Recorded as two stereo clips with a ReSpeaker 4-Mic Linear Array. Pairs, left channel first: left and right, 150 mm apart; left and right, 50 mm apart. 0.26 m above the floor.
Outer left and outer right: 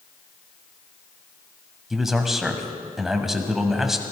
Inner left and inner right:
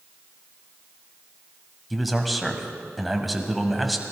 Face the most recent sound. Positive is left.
turn(degrees=0)  # may be behind; listen again after turning